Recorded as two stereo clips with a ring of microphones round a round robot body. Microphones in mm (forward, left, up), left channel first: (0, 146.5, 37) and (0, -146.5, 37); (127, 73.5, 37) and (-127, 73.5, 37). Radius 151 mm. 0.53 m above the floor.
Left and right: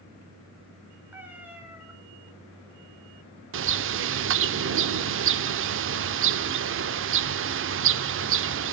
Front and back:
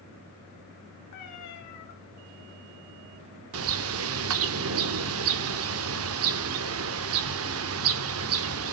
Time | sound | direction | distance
1.1 | a cat meowing | 5° right | 2.5 m
3.5 | a bird | 140° right | 0.5 m